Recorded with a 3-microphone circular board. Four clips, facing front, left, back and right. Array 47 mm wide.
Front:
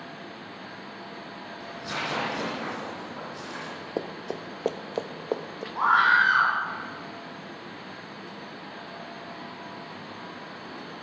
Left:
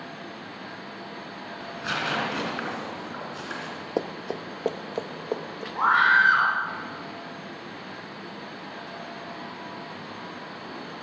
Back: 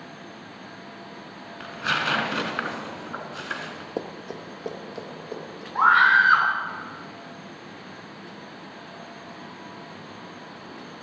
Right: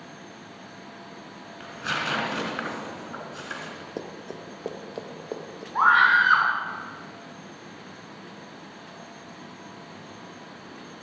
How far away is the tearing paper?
About 2.5 m.